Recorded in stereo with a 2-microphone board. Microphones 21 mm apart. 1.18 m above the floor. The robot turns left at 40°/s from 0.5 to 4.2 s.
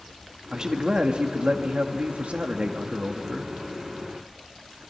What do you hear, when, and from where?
0.5 s a man speaking: 30° right, 1.8 m; by 3.5 s 150° right, 1.8 m